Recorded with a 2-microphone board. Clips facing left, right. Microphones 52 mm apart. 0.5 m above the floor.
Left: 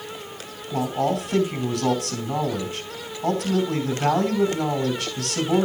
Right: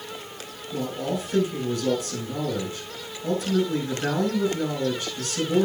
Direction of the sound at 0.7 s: 70° left (ahead or behind).